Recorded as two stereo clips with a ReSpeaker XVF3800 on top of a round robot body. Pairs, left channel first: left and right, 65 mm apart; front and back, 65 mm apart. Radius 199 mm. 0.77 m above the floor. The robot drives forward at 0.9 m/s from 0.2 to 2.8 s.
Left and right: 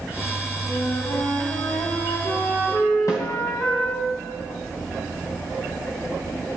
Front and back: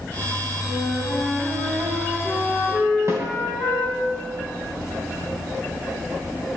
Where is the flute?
80° left, 4 m; by 4.0 s 105° left, 4 m.